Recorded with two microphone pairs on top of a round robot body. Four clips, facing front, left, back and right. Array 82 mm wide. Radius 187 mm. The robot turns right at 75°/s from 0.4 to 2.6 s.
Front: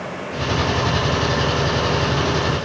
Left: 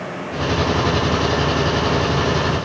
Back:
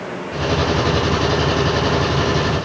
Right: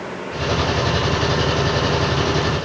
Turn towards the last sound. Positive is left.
No sound to turn to.